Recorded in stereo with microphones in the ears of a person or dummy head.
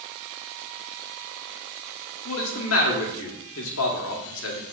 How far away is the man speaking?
About 1.7 m.